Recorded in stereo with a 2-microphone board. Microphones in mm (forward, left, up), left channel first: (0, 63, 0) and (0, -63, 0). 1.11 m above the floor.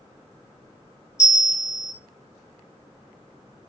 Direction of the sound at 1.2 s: 70° left (ahead or behind).